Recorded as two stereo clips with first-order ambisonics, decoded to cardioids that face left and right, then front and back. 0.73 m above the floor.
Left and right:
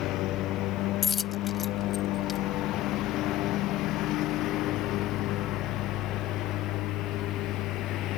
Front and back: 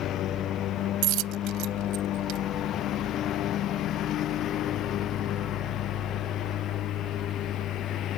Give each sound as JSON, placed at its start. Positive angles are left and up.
{"t": 0.0, "sound": "a lawn mower", "azimuth_deg": 50}
{"t": 1.0, "sound": "a dropped coin", "azimuth_deg": 155}